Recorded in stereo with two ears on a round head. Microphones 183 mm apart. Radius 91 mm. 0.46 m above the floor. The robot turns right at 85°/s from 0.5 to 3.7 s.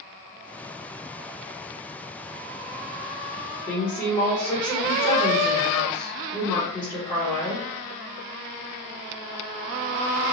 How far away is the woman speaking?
About 1.1 m.